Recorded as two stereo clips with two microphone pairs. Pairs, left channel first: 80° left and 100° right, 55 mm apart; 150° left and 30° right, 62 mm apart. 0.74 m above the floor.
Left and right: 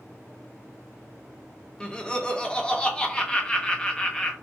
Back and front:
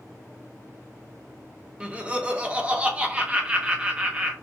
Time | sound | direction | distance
1.8 | laughter | 25° left | 0.8 m